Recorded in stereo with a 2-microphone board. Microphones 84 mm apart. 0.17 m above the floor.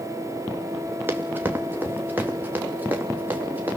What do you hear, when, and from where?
1.1 s running footsteps: 25° right (ahead or behind), 2.5 m; by 3.8 s 20° right (ahead or behind), 4.5 m